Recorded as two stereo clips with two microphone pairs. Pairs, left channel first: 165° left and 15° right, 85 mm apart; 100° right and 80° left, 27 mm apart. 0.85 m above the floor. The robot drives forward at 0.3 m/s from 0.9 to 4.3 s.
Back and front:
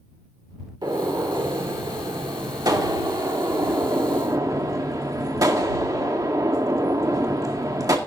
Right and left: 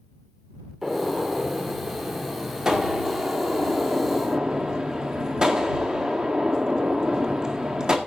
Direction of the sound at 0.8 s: 15° left.